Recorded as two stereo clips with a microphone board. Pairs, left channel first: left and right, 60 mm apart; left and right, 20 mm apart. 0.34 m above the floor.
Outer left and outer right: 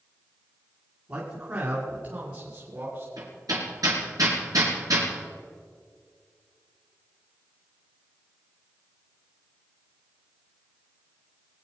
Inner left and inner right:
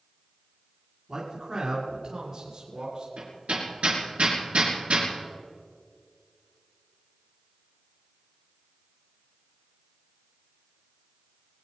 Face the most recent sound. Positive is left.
turn(degrees=-80)